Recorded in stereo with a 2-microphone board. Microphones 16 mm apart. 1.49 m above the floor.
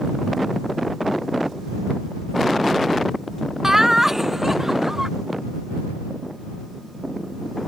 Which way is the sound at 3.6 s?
20° right (ahead or behind).